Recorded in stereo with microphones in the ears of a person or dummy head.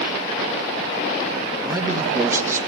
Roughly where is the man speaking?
Centre.